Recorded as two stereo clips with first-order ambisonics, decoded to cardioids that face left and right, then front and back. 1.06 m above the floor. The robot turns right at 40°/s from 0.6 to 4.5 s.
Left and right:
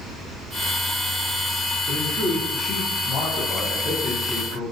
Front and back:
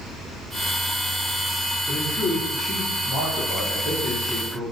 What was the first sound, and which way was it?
A man speaking, 45° left.